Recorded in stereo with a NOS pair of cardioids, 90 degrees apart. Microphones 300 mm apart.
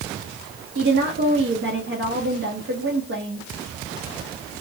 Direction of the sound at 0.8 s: 40° right.